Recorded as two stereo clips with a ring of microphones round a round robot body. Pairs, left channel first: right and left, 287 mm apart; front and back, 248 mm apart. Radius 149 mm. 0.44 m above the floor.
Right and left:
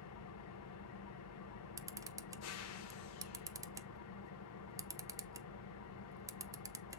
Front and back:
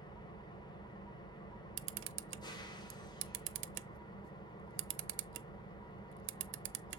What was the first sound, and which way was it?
An engine running, 70° right.